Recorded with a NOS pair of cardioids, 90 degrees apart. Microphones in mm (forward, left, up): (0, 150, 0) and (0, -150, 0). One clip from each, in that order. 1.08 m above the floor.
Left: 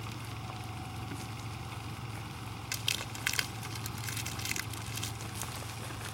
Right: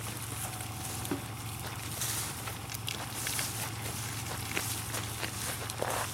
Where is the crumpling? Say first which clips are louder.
Left 7 dB; 45° left.